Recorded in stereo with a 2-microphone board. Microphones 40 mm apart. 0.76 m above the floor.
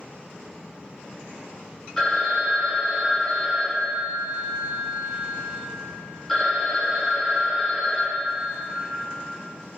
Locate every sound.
2.0 s a phone ringing: 10° left (ahead or behind), 0.7 m